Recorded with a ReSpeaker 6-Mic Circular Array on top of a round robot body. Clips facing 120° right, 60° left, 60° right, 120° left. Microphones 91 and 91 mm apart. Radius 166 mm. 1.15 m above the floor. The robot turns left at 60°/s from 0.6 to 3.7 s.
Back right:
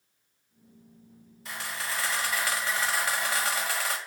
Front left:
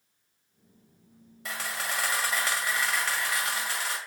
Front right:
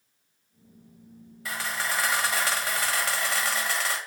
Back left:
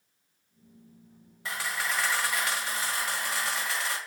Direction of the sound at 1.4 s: 55° left.